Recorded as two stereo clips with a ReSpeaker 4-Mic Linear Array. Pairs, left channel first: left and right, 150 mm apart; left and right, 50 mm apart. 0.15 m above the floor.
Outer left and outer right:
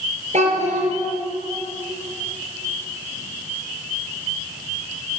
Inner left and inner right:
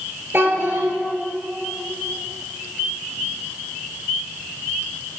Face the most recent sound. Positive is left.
turn(degrees=-50)  # may be behind; listen again after turning